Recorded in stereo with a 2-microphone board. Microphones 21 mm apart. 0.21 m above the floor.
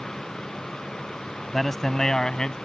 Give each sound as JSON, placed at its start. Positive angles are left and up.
{"t": 1.5, "sound": "a man speaking", "side_deg": 5}